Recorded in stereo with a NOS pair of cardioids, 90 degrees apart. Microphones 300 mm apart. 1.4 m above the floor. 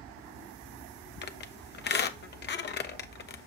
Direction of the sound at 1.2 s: 35° left.